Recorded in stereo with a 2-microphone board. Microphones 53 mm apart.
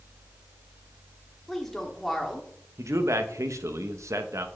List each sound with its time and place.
1.5 s a woman speaking: 5° left (ahead or behind), 2.5 m
2.8 s a man speaking: 80° right, 1.1 m